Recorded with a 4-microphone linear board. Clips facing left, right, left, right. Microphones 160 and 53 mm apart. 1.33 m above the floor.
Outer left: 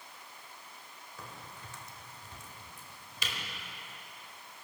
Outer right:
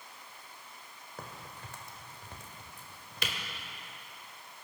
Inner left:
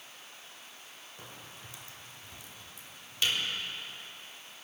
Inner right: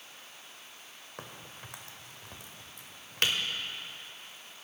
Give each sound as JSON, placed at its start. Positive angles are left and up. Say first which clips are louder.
{"t": 1.2, "sound": "a crack", "louder": "outer right 3 dB, inner right 4 dB", "side_deg": -60, "distance_m": 1.7}